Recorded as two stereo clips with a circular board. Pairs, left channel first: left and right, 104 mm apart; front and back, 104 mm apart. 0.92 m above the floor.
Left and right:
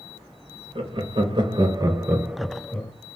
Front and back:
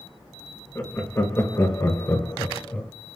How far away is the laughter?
About 1.1 m.